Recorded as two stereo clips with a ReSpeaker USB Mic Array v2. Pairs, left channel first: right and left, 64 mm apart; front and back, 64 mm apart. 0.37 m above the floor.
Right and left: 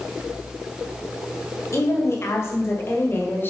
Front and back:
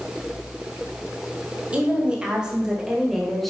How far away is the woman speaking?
About 2.5 m.